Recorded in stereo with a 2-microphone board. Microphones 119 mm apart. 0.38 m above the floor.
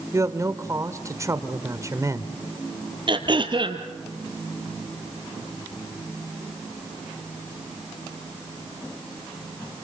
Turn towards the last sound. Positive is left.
turn(degrees=-45)  # may be behind; listen again after turning